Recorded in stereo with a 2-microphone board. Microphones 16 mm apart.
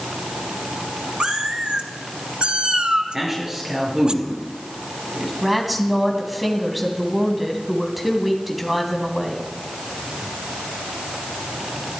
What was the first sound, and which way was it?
A cat meowing, 70° right (ahead or behind).